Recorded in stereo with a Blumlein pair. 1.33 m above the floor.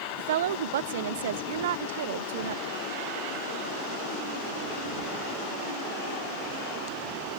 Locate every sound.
0.2 s a woman speaking: 55° right